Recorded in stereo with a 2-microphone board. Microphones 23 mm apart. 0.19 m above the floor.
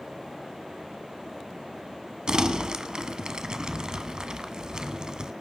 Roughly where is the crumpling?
Right.